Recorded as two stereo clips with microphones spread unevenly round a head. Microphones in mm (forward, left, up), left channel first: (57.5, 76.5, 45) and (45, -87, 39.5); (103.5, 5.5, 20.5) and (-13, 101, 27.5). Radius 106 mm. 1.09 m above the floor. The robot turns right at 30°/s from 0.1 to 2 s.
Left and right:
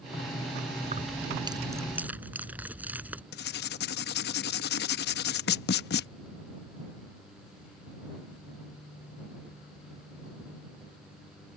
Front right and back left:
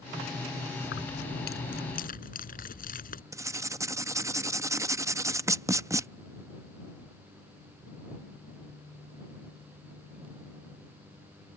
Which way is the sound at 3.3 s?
70° left.